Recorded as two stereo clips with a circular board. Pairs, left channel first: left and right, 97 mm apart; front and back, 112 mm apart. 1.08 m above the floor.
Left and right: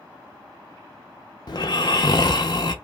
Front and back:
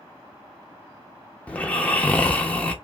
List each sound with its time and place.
1.5 s snoring: 75° left, 0.6 m